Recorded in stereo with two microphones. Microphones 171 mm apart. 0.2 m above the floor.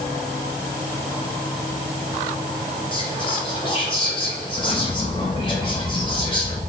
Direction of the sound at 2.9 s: 30° left (ahead or behind).